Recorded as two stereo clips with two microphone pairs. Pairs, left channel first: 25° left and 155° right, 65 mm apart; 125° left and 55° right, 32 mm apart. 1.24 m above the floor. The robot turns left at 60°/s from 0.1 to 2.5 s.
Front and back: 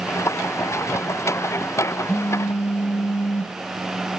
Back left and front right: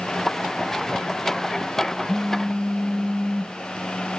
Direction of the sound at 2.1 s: 75° left.